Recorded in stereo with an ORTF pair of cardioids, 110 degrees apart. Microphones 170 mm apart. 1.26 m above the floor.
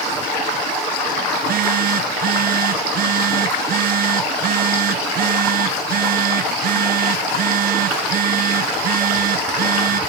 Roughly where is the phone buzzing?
Ahead right.